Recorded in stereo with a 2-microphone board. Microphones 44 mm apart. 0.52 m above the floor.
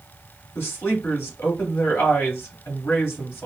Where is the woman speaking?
75° left (ahead or behind), 3 m.